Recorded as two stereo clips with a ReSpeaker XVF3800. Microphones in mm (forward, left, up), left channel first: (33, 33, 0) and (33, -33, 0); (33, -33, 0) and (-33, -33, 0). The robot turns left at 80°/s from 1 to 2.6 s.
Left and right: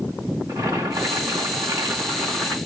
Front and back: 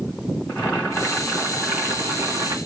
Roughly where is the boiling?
Ahead right.